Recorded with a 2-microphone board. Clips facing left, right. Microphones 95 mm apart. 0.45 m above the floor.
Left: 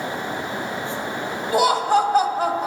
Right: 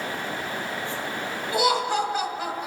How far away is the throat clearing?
I don't hear throat clearing.